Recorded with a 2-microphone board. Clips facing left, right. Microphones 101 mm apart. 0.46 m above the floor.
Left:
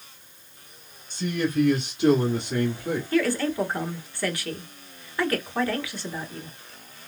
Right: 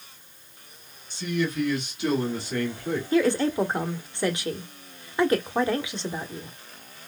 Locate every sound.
1.1 s a man speaking: 40° left (ahead or behind), 1.5 m; by 3.0 s 10° left (ahead or behind), 1.4 m
3.1 s a woman speaking: 20° right (ahead or behind), 1.0 m